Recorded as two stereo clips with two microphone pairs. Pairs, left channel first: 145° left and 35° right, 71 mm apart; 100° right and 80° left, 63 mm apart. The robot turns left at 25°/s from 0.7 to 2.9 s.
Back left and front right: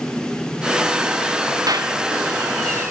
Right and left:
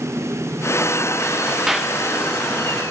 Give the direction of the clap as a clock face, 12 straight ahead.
12 o'clock.